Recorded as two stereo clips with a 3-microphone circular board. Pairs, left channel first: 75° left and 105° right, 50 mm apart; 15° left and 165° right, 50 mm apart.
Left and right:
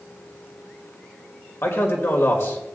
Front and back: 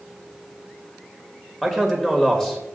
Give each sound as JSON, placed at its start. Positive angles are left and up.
{"t": 1.6, "sound": "a man speaking", "azimuth_deg": 95, "distance_m": 2.0}